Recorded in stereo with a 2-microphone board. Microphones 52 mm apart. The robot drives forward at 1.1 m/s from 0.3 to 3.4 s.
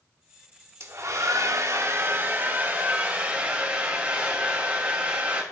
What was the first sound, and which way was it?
A hair dryer, 60° right (ahead or behind).